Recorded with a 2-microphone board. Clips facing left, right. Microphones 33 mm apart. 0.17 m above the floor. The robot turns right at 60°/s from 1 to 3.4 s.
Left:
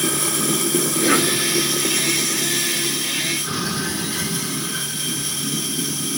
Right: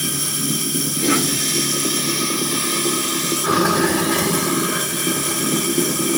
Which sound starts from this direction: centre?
A cough, at 1.0 s.